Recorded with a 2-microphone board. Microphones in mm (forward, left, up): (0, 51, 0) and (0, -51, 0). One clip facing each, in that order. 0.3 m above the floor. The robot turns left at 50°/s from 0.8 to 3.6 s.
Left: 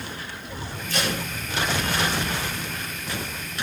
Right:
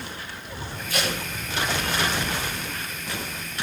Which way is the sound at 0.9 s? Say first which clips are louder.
Left 1 dB; 5° right (ahead or behind).